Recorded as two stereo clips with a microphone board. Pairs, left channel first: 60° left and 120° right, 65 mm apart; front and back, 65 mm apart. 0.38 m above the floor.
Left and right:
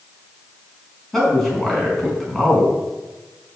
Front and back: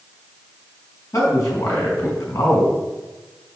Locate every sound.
1.1 s a man speaking: 25° right, 4.5 m